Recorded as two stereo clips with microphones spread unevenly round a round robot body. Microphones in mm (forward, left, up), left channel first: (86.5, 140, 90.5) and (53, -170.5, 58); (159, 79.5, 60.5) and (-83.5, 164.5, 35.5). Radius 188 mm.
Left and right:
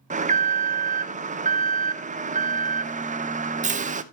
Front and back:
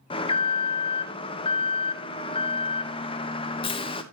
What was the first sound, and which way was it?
An alarm, 80° right.